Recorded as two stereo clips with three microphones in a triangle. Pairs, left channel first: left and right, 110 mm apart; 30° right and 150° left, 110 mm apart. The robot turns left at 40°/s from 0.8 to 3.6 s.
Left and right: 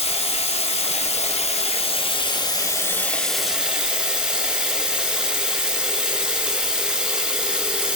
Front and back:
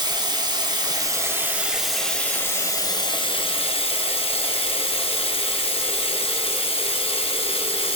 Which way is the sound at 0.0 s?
105° left.